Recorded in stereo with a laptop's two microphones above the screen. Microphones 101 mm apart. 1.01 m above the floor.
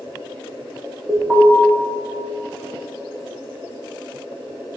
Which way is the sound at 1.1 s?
30° right (ahead or behind).